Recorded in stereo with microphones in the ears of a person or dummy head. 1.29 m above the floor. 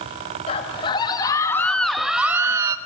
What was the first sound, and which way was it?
A scream, 35° left (ahead or behind).